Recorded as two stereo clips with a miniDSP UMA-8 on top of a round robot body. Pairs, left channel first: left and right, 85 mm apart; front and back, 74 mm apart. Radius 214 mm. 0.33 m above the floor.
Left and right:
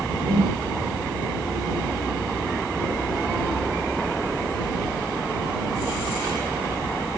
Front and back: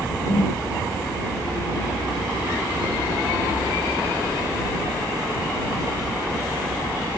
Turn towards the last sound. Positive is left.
turn(degrees=-60)